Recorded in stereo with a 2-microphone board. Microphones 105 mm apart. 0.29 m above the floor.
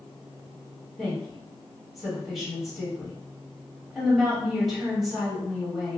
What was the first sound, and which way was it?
A woman speaking, centre (ahead or behind).